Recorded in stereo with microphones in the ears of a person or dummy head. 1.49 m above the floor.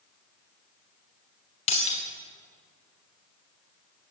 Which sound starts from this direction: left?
Breaking glass, at 1.7 s.